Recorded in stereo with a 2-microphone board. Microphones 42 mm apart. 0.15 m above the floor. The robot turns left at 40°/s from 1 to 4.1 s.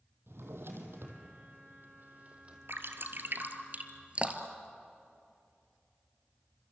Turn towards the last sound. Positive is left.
turn(degrees=-30)  # may be behind; listen again after turning